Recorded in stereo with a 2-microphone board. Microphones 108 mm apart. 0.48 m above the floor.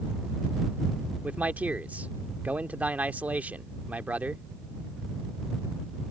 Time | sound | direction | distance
1.2 | a man speaking | 15° right (ahead or behind) | ?